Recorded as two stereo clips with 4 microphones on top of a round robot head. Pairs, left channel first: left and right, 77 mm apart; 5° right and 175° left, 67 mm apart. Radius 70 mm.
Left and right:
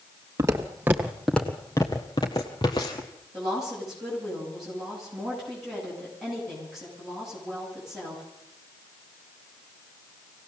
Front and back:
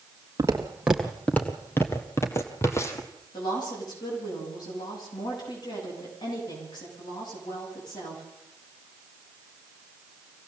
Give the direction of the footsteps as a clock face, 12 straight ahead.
4 o'clock.